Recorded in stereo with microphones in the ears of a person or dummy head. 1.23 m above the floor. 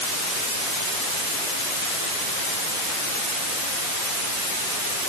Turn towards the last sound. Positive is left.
No sound to turn to.